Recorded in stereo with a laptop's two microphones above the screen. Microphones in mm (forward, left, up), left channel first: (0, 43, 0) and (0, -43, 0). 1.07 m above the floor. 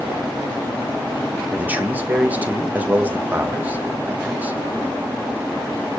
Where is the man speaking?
20° right (ahead or behind), 1.4 m.